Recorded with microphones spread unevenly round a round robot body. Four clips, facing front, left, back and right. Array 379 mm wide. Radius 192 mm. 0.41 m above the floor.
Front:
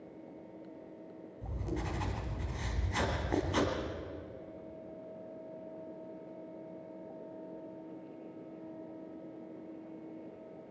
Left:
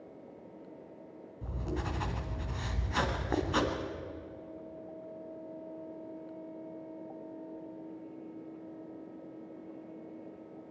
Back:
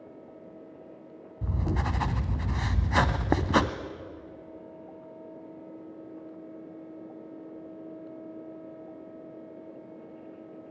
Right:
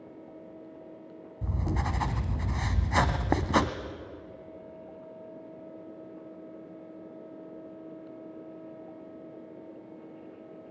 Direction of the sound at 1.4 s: 145° right.